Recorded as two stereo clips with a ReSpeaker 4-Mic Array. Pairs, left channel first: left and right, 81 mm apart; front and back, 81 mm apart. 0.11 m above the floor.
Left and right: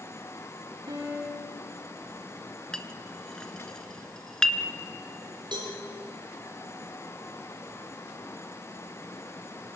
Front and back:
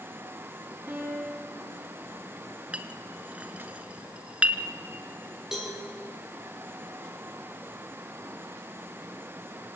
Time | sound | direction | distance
0.9 | a piano | 110° right | 9 m
2.7 | a clink | 150° left | 1.2 m
5.5 | a cowbell | 95° right | 7 m